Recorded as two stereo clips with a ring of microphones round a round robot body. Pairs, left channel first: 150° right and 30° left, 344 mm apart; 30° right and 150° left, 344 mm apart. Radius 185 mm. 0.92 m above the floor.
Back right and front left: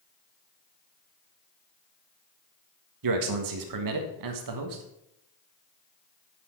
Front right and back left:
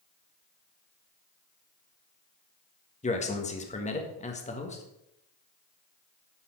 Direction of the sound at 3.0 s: 40° left.